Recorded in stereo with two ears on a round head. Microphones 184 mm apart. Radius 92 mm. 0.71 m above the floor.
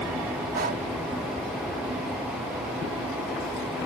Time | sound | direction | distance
0.5 | breathing | 45° right (ahead or behind) | ?